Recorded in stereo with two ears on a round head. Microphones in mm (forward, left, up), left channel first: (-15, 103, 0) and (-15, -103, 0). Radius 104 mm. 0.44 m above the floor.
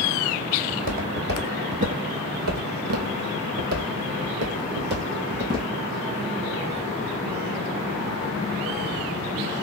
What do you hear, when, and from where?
0.7 s footsteps: 40° right (ahead or behind), 1.6 m; by 5.7 s 35° right (ahead or behind), 1.8 m